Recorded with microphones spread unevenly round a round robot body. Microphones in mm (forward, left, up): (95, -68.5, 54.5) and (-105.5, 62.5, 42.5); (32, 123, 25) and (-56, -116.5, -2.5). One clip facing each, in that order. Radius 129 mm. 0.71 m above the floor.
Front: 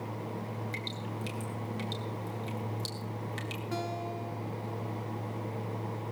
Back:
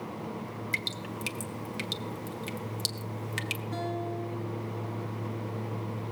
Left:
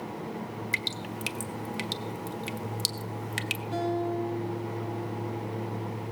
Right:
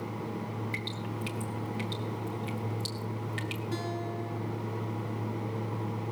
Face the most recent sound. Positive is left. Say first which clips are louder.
# back 4 dB, left 9 dB
turn(degrees=-45)